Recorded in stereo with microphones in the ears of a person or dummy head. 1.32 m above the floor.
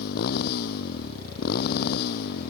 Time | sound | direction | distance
0.0 | a motorcycle | 50° left (ahead or behind) | ?